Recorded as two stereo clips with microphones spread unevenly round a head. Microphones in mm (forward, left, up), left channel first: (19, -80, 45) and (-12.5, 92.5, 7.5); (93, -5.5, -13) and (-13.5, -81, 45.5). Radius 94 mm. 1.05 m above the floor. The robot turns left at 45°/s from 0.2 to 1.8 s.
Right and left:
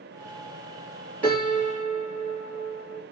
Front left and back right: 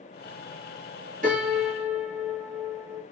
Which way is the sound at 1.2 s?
160° right.